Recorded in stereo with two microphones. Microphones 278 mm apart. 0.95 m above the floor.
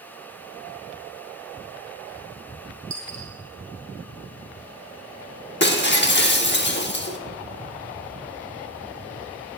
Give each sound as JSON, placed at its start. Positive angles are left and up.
{"t": 2.9, "sound": "a dropped coin", "side_deg": -30, "distance_m": 1.8}
{"t": 5.6, "sound": "breaking glass", "side_deg": 40, "distance_m": 0.9}